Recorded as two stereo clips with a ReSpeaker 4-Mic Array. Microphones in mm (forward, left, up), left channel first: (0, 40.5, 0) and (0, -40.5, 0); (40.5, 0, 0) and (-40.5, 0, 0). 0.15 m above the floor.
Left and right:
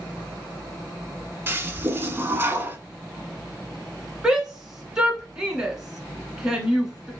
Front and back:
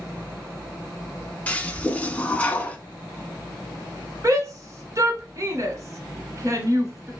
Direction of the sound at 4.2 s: 170° right.